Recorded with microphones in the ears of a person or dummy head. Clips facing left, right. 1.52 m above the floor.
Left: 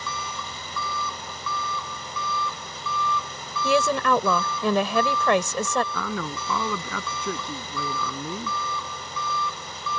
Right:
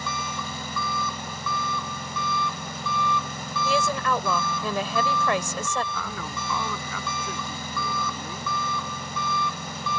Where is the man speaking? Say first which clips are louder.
Left 4 dB; 50° left (ahead or behind).